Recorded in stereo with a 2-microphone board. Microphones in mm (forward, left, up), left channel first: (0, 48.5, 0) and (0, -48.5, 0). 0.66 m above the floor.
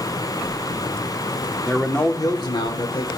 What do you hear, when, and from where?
1.7 s a man speaking: 5° left (ahead or behind), 1.1 m; by 3.1 s 70° left (ahead or behind), 1.8 m